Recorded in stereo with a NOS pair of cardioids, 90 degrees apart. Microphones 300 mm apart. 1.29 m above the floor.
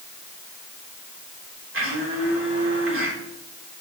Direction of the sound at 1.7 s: 40° right.